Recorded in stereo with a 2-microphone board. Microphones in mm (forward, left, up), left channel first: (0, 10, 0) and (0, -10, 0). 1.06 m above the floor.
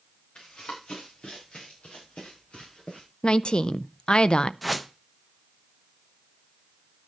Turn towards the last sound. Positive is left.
turn(degrees=5)  # may be behind; listen again after turning